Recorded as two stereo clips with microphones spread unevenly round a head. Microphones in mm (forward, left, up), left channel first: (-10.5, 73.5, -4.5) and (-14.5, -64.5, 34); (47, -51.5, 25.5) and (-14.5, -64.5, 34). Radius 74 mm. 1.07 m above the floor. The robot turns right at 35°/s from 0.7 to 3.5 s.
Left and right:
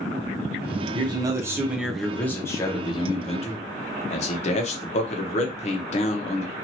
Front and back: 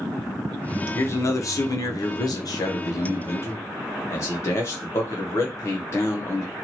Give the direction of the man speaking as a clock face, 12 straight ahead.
1 o'clock.